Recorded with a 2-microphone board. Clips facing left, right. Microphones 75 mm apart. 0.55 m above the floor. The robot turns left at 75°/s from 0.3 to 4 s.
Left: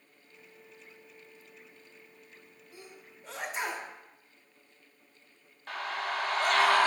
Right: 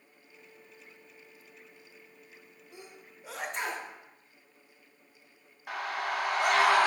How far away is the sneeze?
About 0.6 m.